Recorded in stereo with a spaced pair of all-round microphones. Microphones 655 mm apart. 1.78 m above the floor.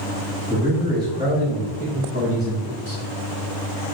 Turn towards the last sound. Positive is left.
turn(degrees=-35)  # may be behind; listen again after turning